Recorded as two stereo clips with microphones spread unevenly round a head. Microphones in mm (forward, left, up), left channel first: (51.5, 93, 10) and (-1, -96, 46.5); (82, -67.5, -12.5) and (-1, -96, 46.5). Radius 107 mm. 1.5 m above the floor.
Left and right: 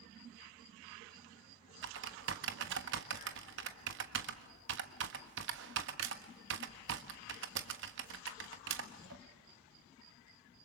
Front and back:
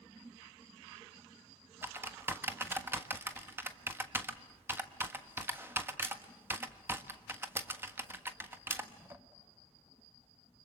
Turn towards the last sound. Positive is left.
turn(degrees=-125)